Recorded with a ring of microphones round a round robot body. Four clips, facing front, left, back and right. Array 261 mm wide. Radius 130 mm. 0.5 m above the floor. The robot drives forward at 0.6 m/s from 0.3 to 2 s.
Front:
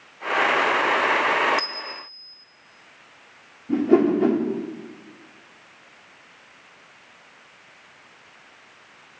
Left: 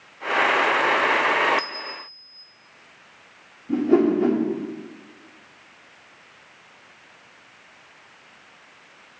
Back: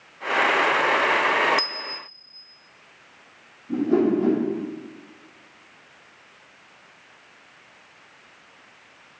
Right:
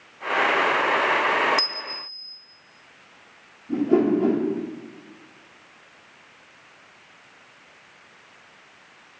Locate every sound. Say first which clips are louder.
1.6 s a bell: left 1 dB, even; 115° right, 0.6 m; by 2.4 s 130° right, 0.7 m
3.7 s a whoosh: left 1 dB, front 2 dB; 25° left, 1.1 m